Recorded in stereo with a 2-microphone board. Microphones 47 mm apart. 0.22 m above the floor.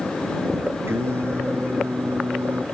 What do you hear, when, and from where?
0.9 s singing: 60° right (ahead or behind)